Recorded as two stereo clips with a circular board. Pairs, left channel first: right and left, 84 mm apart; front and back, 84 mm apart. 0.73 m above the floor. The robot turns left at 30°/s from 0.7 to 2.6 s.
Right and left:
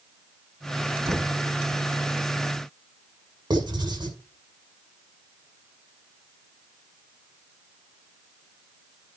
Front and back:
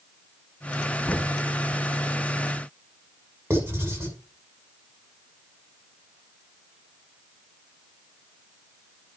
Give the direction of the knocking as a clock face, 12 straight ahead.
10 o'clock.